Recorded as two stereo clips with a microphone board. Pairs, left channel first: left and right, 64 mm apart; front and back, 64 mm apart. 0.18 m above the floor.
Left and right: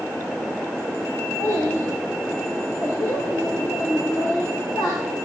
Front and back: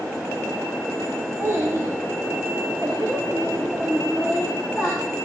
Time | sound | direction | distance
1.4 | a child speaking | 135° left | 7 m